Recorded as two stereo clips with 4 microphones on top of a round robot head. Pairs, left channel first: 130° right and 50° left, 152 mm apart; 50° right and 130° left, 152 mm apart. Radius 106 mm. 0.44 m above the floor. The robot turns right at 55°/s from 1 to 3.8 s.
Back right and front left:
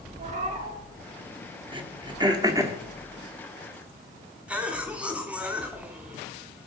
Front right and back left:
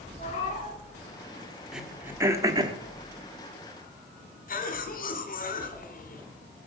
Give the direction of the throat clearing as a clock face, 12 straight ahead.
10 o'clock.